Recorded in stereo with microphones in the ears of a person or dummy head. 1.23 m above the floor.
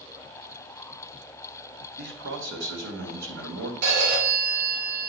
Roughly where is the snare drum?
I don't hear a snare drum.